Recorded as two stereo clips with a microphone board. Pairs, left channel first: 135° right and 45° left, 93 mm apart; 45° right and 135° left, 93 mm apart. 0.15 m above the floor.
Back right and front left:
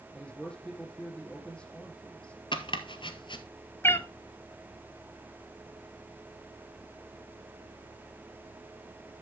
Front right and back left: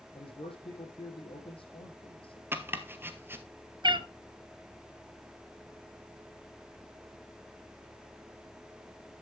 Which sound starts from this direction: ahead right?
A man speaking, at 0.1 s.